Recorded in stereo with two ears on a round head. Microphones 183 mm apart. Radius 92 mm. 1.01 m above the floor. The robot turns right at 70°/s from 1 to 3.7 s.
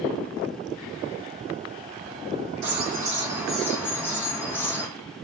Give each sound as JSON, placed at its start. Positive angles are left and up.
{"t": 2.6, "sound": "a bird", "azimuth_deg": -65, "distance_m": 0.8}